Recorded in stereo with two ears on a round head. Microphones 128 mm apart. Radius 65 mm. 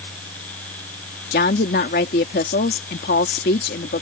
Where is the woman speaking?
75° left (ahead or behind).